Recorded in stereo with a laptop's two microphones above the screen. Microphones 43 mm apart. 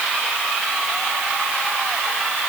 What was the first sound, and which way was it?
Only background noise.